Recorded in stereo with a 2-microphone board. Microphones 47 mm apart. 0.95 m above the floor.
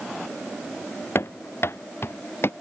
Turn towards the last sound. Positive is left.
turn(degrees=55)  # may be behind; listen again after turning